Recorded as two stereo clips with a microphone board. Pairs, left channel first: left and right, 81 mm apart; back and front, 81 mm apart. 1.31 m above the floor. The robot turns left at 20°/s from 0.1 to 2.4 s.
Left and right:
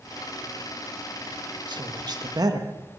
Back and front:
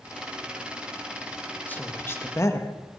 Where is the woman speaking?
110° right, 1.5 m; by 2.7 s 125° right, 1.5 m.